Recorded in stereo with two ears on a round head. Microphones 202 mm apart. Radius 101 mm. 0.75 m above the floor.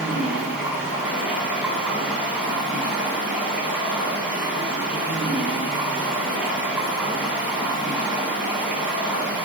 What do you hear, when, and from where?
0.0 s running water: 5° right (ahead or behind), 0.9 m